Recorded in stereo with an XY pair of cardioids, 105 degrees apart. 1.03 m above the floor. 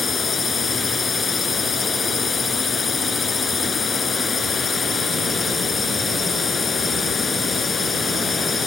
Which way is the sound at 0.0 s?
35° left.